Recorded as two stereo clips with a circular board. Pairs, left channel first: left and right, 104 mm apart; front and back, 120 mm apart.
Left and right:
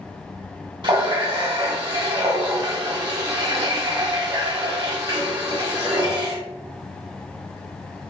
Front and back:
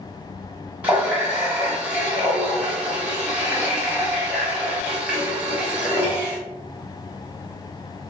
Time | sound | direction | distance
0.8 | a running tap | 105° right | 0.8 m